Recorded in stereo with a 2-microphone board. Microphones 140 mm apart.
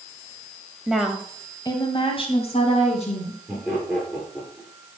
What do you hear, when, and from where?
0.9 s a woman speaking: 5° right (ahead or behind), 1.5 m; by 3.4 s 55° left (ahead or behind), 3.5 m
3.5 s laughter: 10° left (ahead or behind), 4 m